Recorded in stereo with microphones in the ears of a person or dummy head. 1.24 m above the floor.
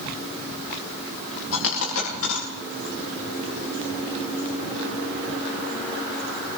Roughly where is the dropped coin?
Left.